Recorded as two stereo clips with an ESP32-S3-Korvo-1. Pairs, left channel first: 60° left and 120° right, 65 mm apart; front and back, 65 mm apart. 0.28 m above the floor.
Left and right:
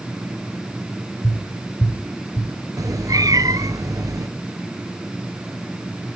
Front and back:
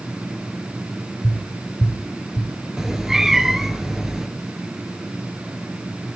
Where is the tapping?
55° left, 3 m.